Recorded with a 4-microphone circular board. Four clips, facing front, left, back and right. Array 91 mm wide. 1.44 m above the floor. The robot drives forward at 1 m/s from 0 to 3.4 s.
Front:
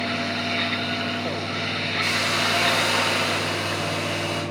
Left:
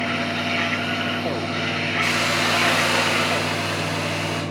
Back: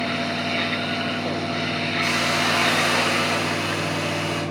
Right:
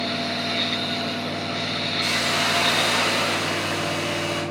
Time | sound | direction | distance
2.0 | a hiss | 165° left | 2.5 m